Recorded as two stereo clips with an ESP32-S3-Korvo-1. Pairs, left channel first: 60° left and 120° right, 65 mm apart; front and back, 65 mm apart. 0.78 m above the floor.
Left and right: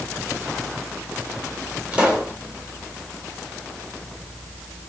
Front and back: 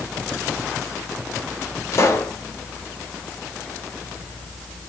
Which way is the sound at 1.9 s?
50° right.